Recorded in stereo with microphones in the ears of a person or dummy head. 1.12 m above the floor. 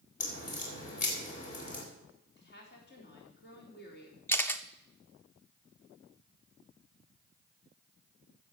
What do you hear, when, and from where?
0.2 s a crack: 40° left (ahead or behind), 2.5 m
2.4 s a woman speaking: 50° left (ahead or behind), 3.5 m
4.3 s a camera shutter: 10° left (ahead or behind), 0.6 m